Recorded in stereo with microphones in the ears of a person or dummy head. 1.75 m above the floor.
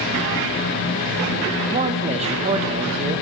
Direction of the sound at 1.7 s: 35° right (ahead or behind).